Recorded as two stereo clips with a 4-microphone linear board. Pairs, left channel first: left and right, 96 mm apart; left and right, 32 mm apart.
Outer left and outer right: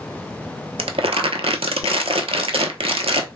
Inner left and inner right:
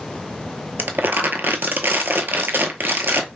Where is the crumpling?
75° right (ahead or behind), 0.7 m.